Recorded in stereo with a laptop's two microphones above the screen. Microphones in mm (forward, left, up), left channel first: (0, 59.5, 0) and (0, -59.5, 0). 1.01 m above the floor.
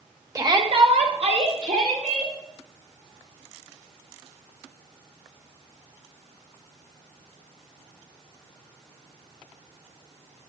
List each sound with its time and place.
0.3 s a shout: 25° right (ahead or behind), 1.2 m; by 2.3 s 80° right, 3 m